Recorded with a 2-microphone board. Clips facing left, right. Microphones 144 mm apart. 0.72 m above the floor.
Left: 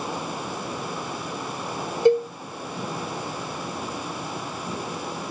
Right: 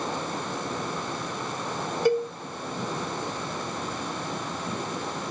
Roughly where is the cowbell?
Left.